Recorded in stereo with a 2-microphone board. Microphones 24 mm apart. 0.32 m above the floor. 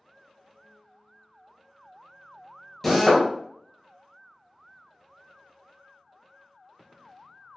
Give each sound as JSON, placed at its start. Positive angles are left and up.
{"t": 2.8, "sound": "a drill", "side_deg": 5, "distance_m": 0.7}